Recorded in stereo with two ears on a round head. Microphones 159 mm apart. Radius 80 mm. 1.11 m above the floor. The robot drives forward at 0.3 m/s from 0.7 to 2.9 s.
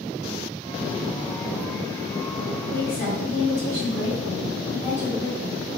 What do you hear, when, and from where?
2.7 s a woman speaking: 60° left (ahead or behind), 1.3 m